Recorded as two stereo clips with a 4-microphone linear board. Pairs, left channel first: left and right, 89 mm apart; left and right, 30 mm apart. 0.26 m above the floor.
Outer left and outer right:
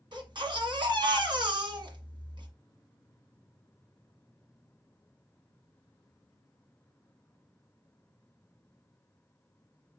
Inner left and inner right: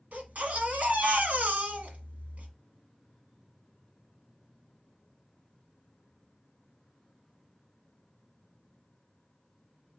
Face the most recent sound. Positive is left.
turn(degrees=-60)  # may be behind; listen again after turning